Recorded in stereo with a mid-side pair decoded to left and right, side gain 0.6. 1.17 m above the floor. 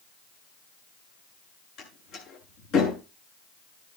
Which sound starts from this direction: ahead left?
A door slam, at 1.8 s.